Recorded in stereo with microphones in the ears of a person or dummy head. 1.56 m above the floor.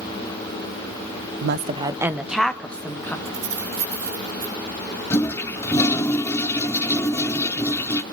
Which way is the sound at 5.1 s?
15° left (ahead or behind).